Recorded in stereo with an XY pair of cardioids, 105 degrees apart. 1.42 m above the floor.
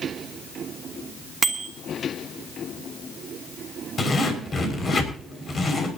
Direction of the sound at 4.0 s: 35° left.